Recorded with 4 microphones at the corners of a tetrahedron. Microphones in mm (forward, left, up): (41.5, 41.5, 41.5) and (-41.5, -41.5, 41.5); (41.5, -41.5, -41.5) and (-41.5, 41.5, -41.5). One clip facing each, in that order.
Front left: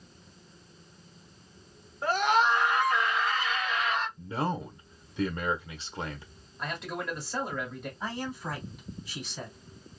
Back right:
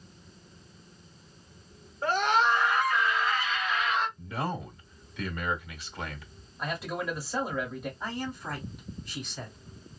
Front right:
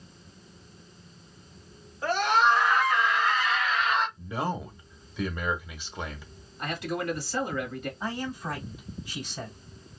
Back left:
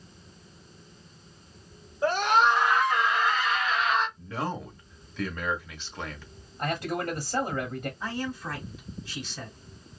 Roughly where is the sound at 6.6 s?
Behind left.